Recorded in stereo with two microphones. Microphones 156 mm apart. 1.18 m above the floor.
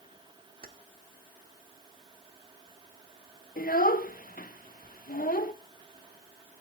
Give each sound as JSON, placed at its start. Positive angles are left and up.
{"t": 0.6, "sound": "keys jangling", "side_deg": -65, "distance_m": 1.7}
{"t": 3.6, "sound": "a child speaking", "side_deg": 65, "distance_m": 0.8}